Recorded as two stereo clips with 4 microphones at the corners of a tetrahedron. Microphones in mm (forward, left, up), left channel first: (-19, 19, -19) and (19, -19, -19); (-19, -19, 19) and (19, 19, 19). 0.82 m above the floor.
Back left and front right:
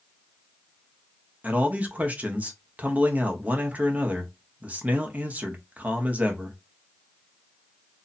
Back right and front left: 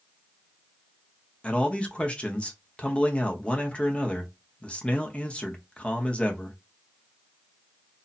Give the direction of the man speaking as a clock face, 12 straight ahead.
3 o'clock.